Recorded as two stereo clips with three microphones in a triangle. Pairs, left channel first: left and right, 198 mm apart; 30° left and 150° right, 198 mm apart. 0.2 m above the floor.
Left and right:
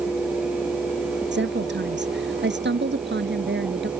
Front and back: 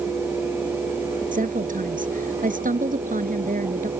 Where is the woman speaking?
105° right.